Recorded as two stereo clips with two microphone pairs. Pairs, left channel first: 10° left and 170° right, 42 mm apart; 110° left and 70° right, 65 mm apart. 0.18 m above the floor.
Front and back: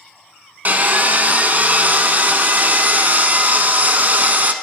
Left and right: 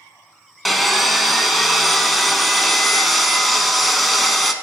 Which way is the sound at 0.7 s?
160° right.